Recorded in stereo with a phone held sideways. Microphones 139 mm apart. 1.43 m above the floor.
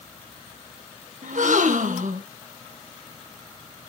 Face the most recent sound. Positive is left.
turn(degrees=-75)  # may be behind; listen again after turning